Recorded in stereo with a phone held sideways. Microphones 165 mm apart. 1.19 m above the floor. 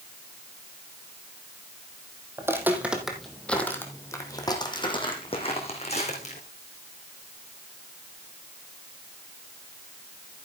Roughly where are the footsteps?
Centre.